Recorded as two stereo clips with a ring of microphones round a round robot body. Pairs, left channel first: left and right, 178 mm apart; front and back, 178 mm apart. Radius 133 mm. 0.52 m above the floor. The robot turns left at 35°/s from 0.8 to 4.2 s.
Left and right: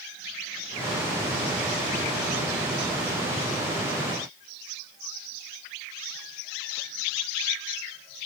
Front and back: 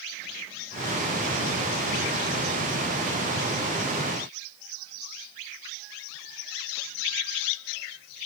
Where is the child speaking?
I don't hear a child speaking.